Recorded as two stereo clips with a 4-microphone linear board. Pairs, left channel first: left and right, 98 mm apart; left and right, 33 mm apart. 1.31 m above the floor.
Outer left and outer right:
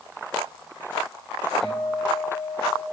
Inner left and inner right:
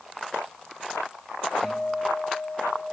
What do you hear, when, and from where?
1.6 s a guitar: 10° left (ahead or behind), 4.5 m